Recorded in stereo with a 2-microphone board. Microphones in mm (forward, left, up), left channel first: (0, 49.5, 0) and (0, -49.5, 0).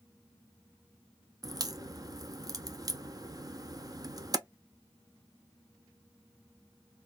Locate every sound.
1.4 s a crack: 40° right (ahead or behind), 0.5 m